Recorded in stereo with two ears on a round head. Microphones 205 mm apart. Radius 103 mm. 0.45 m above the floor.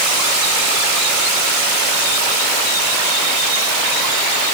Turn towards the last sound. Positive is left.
No sound to turn to.